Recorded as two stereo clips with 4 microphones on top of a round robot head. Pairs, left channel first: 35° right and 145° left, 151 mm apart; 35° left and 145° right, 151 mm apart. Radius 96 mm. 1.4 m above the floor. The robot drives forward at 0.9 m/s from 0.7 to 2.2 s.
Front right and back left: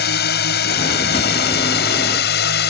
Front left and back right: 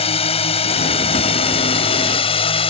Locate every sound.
0.0 s a drone: 20° right